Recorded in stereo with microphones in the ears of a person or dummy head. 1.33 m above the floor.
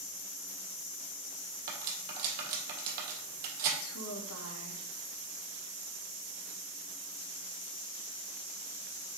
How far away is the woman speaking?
About 1.2 m.